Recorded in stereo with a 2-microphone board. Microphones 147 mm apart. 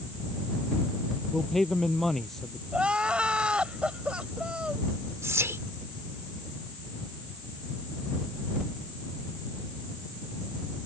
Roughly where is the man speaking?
Centre.